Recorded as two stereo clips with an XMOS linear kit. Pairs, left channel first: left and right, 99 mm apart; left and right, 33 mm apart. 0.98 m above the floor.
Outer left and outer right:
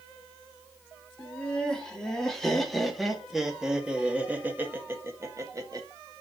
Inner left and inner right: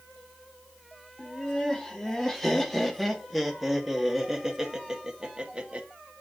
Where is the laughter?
10° left (ahead or behind), 3 m; by 5.9 s 40° right (ahead or behind), 1.5 m.